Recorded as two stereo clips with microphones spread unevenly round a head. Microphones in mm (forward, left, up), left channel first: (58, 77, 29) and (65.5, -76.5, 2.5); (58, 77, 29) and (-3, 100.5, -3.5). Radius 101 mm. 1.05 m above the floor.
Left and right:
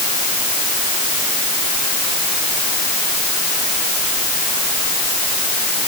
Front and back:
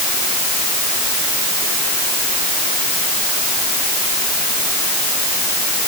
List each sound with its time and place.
Only background noise.